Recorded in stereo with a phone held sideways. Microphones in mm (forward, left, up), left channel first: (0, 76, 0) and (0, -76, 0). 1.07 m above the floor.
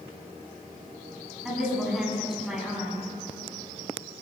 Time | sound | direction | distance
1.4 | a woman speaking | 5° right (ahead or behind) | 9 m